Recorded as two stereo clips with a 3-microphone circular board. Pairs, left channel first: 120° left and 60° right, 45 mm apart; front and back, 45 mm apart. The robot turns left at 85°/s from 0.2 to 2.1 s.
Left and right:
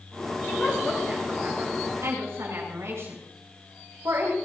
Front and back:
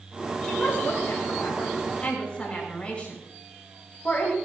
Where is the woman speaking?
75° left, 6.5 m; by 4.3 s 65° right, 6.5 m.